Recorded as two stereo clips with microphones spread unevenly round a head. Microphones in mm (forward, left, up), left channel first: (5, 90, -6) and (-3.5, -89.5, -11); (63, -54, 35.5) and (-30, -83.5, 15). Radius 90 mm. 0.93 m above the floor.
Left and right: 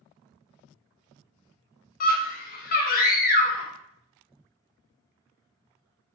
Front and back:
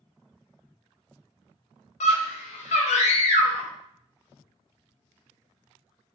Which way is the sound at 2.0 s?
45° left.